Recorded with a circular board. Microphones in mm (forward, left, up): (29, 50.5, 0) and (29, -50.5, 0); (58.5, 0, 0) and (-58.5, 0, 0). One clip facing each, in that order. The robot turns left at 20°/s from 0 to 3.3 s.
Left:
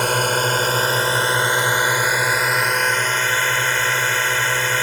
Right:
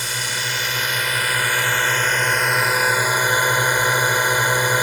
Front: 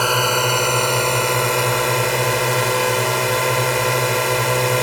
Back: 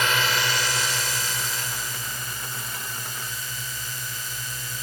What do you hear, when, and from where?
0.0 s a drone: 55° left; by 4.8 s 15° right